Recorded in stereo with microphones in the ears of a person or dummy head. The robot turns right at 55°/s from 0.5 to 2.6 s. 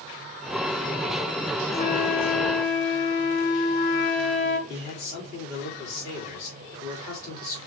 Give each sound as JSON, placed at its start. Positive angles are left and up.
{"t": 1.7, "sound": "a flute", "azimuth_deg": 55, "distance_m": 1.1}
{"t": 4.7, "sound": "a man speaking", "side_deg": 45, "distance_m": 3.0}